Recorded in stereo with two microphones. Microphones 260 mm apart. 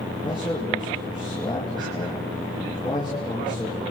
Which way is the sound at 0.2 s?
20° left (ahead or behind).